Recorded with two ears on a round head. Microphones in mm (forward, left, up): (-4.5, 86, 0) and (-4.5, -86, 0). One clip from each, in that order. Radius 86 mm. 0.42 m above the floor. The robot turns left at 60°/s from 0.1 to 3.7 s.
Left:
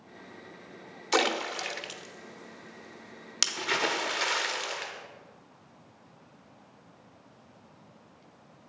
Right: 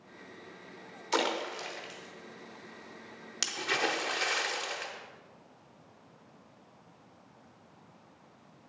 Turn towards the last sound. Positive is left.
turn(degrees=5)  # may be behind; listen again after turning